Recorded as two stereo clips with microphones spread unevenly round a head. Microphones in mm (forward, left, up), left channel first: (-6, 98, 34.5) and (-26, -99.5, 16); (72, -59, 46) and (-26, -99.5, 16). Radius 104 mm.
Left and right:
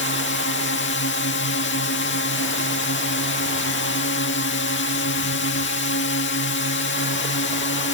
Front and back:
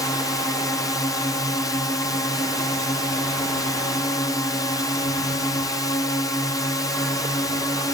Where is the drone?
95° left.